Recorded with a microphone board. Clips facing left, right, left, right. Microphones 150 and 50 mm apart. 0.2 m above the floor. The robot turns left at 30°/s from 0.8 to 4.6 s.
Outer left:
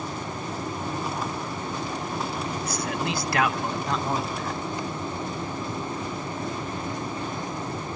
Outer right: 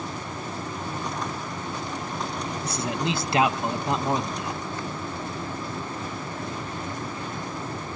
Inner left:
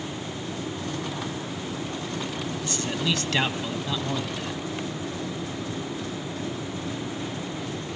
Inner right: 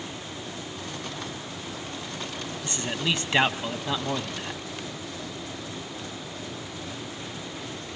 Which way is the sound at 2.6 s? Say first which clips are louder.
Outer right 3 dB, even; 25° right (ahead or behind).